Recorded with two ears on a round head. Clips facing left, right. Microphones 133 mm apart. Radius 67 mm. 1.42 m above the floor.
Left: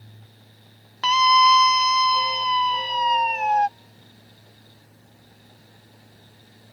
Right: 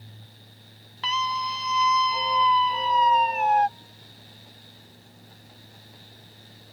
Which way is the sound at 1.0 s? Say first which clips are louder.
Left 11 dB; 50° left (ahead or behind).